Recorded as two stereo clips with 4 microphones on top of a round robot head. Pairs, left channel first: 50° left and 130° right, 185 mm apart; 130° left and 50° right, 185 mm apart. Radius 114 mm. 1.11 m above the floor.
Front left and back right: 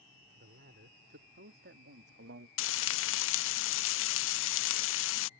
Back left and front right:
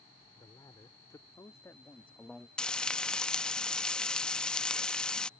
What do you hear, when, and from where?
0.3 s a man speaking: 160° right; by 2.5 s 140° right
2.6 s frying: 45° left